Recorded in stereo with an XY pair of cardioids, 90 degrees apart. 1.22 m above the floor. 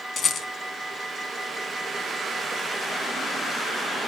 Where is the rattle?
60° left, 3 m.